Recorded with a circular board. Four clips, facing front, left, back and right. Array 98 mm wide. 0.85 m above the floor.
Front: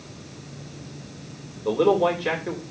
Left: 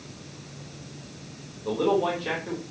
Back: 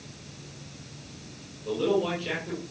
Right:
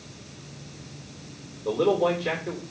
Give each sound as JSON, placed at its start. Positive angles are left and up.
{"t": 1.6, "sound": "a man speaking", "azimuth_deg": 0, "distance_m": 3.5}